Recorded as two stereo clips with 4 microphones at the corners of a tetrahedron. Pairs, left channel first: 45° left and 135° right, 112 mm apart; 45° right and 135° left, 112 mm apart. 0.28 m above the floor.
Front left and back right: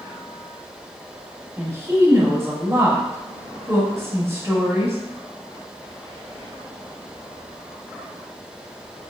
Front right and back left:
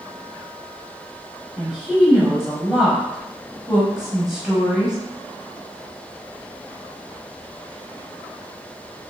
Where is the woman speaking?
150° right, 1.1 m.